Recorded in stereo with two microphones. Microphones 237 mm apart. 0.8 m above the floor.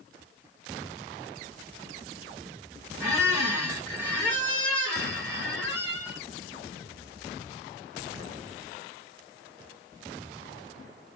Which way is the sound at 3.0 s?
10° right (ahead or behind).